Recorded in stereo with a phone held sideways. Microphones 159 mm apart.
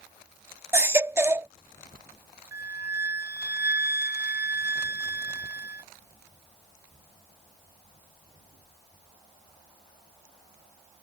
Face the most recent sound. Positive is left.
turn(degrees=85)